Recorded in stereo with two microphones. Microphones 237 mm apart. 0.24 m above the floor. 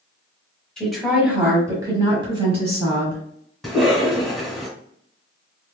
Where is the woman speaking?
5° left (ahead or behind), 1.4 m; by 3.2 s 30° right (ahead or behind), 2 m.